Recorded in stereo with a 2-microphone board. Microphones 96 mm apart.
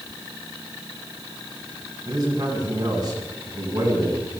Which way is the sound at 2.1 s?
40° right (ahead or behind).